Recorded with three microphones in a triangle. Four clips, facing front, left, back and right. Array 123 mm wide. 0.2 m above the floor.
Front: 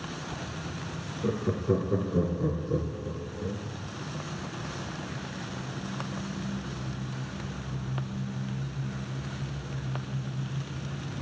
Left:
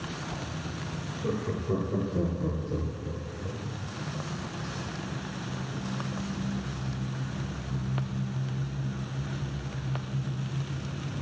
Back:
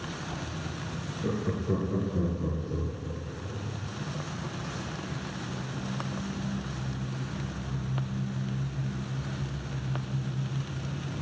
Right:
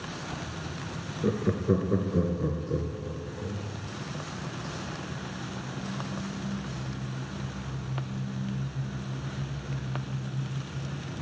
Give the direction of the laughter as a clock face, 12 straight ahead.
3 o'clock.